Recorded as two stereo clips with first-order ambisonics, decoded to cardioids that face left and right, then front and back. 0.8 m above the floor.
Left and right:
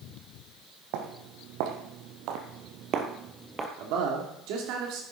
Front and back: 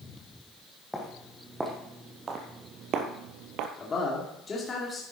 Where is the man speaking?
70° right, 2 m.